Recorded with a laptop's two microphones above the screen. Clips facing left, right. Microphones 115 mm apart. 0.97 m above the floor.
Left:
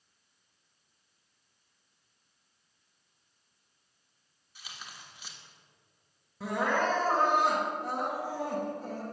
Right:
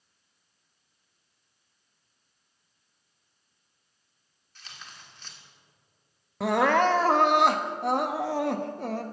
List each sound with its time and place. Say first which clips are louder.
4.5 s tearing paper: even; 10° left (ahead or behind), 1.2 m
6.4 s crying: right 7 dB; 65° right (ahead or behind), 0.8 m